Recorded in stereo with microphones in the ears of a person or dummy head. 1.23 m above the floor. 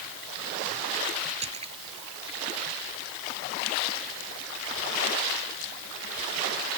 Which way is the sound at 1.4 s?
30° right (ahead or behind).